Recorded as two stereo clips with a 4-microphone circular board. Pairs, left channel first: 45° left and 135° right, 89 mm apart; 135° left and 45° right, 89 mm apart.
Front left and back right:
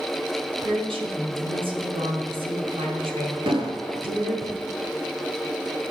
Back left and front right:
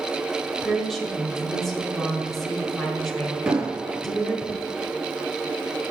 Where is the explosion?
125° right, 2.5 m.